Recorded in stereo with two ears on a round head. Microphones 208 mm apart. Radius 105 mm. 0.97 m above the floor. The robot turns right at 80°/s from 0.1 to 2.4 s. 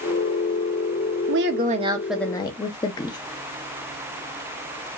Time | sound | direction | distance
1.3 | a woman speaking | 70° right | 1.0 m